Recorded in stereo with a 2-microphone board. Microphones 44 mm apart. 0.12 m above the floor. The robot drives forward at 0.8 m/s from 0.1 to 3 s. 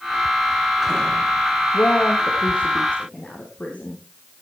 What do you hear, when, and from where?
1.7 s a woman speaking: 30° left (ahead or behind), 4 m; by 4.4 s 25° left (ahead or behind), 5 m